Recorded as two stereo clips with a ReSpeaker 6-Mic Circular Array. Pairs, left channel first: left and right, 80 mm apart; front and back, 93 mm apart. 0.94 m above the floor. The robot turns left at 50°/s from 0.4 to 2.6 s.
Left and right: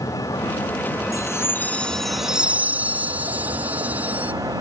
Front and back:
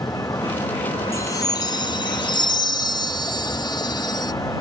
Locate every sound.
0.0 s a vehicle: 55° left; by 4.6 s 50° right
1.1 s a chime: 50° left; by 4.3 s 25° right